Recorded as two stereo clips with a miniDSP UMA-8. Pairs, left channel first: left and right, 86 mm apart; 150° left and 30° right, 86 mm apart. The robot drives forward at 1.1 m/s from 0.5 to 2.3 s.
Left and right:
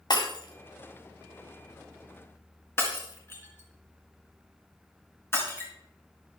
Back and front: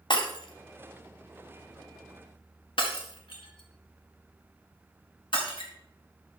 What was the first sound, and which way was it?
Breaking glass, 125° left.